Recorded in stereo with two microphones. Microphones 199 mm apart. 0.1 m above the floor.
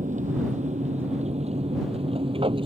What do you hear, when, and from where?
0.0 s an aircraft: 40° right (ahead or behind); by 2.7 s 25° right (ahead or behind)